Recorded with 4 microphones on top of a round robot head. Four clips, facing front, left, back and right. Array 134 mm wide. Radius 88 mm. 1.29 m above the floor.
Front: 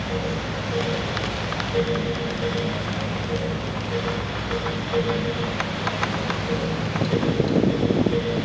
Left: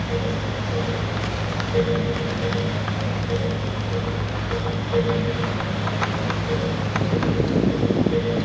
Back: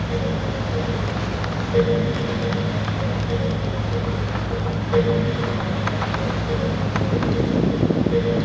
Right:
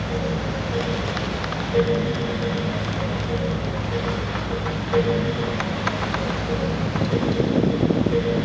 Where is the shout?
I don't hear a shout.